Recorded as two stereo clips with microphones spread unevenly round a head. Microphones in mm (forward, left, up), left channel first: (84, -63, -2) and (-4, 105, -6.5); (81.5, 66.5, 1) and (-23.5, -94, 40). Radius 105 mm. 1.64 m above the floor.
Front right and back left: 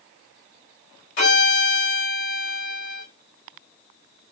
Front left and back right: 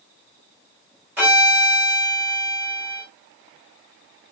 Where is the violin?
45° right, 4.5 m.